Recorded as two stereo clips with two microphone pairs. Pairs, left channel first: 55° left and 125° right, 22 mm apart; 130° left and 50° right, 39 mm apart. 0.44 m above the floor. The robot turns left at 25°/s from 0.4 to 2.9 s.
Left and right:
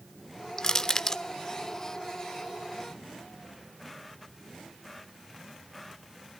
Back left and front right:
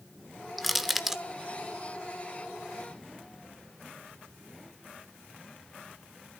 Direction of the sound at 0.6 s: 35° left.